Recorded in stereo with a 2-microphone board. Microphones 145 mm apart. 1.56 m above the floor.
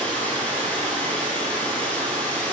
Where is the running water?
10° left (ahead or behind), 3 m.